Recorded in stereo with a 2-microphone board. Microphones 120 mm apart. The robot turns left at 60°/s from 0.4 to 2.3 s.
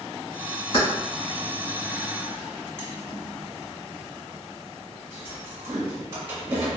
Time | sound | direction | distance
0.7 | keys jangling | 45° left (ahead or behind) | 1.3 m